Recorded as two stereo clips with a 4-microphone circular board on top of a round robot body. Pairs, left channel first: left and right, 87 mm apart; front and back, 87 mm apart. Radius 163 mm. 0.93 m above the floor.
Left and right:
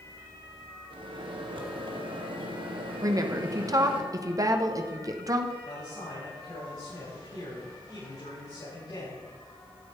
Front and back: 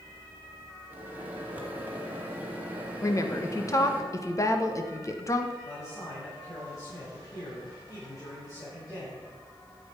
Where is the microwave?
110° right, 2.0 m.